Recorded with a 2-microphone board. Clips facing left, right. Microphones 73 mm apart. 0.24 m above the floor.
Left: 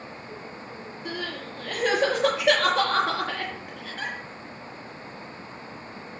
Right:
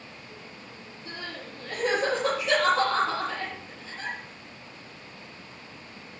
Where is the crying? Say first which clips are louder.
Left 5 dB; 70° left (ahead or behind), 5.5 m.